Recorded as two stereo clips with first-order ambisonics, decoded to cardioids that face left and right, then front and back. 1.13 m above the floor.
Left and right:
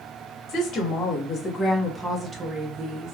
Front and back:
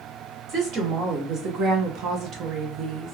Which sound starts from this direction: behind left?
A woman speaking, at 0.5 s.